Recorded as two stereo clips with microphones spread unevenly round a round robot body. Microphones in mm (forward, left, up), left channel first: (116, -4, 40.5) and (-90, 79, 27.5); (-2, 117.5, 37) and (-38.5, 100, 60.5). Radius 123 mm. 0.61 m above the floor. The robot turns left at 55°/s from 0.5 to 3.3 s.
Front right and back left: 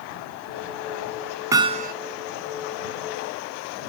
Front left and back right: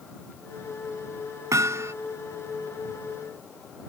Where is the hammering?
125° right; by 1.9 s 150° right.